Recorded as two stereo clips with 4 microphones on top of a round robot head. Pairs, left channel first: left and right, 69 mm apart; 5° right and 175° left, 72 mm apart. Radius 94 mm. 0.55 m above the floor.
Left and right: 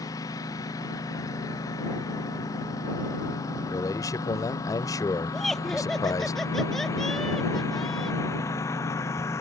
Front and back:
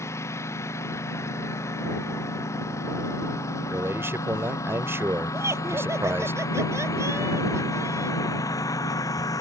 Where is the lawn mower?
45° left; by 9.4 s 35° left.